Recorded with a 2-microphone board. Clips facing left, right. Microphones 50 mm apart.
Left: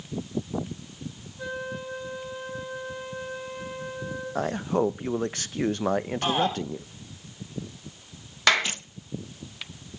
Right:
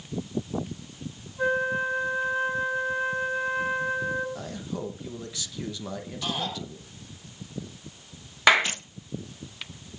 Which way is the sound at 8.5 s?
15° right (ahead or behind).